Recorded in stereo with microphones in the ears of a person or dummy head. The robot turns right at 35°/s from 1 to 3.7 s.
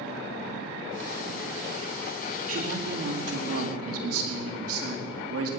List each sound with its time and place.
2.4 s a man speaking: 135° right, 4.5 m; by 5.5 s 90° right, 4.5 m